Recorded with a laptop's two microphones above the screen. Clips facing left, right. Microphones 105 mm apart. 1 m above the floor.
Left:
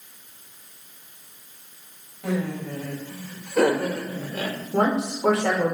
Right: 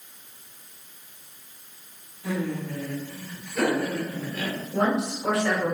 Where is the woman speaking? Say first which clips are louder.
Left 2 dB; 80° left, 3 m.